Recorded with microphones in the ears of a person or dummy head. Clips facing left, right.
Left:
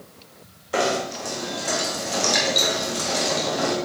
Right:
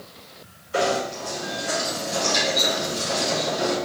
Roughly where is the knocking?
Left.